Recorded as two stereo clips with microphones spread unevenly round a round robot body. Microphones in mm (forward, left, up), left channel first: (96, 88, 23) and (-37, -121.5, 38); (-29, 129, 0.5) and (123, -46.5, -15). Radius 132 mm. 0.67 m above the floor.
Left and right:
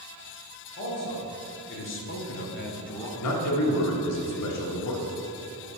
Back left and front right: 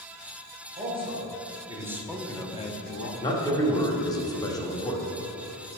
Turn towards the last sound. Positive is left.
turn(degrees=55)